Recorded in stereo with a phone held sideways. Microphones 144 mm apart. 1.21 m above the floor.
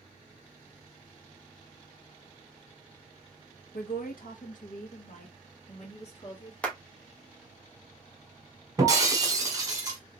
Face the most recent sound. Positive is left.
turn(degrees=-25)  # may be behind; listen again after turning